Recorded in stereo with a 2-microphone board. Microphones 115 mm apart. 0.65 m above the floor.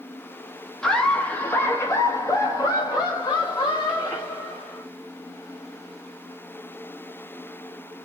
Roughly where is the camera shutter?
No camera shutter in this recording.